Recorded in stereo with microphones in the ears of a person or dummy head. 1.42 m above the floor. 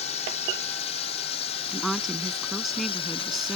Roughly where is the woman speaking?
Centre.